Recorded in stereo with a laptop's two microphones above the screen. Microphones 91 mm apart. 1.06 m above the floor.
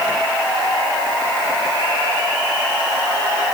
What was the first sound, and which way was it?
Only background noise.